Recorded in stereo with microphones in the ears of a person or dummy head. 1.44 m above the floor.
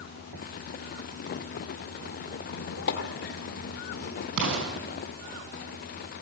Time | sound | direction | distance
2.4 | a squeak | 55° left (ahead or behind) | 1.6 m
4.4 | an explosion | 70° right (ahead or behind) | 5 m